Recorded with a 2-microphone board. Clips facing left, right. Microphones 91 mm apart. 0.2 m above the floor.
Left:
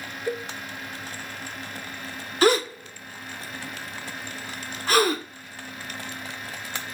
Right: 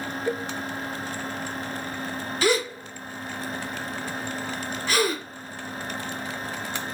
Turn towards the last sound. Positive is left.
turn(degrees=45)  # may be behind; listen again after turning